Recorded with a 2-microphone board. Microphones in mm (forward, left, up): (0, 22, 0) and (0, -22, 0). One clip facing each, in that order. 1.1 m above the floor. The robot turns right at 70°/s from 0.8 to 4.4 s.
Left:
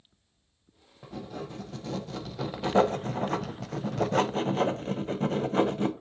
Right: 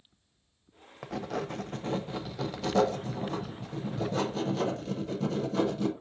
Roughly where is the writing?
Right.